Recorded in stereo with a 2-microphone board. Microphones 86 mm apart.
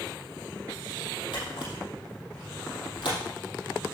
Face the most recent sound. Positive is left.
turn(degrees=75)  # may be behind; listen again after turning